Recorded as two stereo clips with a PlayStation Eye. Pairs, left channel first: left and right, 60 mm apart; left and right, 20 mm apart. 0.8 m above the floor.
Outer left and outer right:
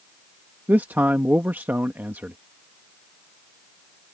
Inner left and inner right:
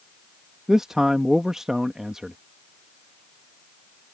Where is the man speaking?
30° right (ahead or behind).